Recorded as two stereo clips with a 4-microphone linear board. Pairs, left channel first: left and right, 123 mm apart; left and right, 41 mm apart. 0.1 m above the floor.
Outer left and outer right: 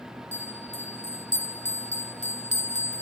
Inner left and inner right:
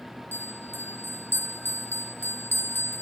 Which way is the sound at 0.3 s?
70° left (ahead or behind).